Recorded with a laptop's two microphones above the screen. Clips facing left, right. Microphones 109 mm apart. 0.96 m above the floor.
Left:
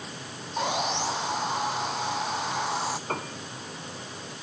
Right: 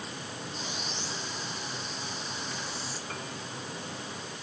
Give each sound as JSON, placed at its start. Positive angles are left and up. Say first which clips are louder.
{"t": 0.6, "sound": "sawing", "louder": "left 16 dB", "side_deg": 85}
{"t": 3.1, "sound": "a piano", "louder": "left 7 dB", "side_deg": 60}